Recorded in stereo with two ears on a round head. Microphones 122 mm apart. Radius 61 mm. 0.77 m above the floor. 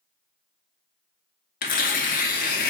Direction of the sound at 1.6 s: 70° left (ahead or behind).